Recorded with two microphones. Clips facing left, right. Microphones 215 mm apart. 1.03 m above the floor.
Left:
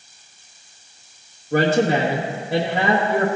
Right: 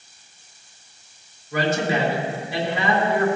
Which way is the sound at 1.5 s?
60° left (ahead or behind).